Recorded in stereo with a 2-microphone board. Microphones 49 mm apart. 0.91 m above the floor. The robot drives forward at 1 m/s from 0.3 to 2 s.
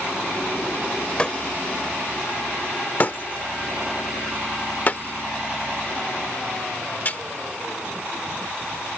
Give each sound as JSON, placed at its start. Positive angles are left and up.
{"t": 1.2, "sound": "breaking glass", "side_deg": 25}